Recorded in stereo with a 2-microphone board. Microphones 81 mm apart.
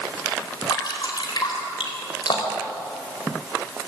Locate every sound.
0.7 s dripping: 60° left (ahead or behind), 4 m